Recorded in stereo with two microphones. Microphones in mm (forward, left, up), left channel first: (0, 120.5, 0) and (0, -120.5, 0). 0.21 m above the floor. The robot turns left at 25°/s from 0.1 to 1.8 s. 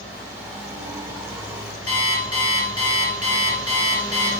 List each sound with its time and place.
1.9 s an alarm clock: 75° left (ahead or behind), 2.0 m